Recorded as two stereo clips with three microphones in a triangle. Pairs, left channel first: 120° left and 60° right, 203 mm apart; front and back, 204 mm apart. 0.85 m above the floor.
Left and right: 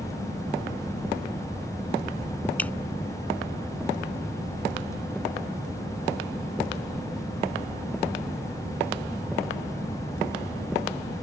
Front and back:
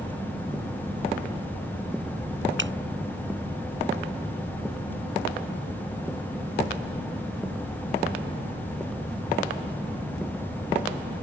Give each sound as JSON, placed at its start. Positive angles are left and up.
{"t": 2.6, "sound": "dripping", "azimuth_deg": -155}